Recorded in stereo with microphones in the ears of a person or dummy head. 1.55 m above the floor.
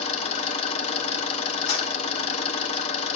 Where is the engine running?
40° left (ahead or behind), 0.7 m.